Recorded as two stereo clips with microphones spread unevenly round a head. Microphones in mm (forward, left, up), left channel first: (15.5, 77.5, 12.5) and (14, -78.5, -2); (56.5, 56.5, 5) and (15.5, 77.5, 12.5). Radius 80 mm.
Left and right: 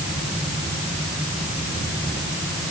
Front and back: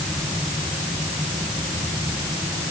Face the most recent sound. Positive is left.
No sound to turn to.